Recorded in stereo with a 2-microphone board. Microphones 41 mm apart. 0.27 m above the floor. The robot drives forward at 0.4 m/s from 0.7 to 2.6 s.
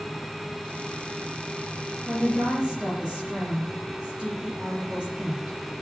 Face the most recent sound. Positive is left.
turn(degrees=-30)  # may be behind; listen again after turning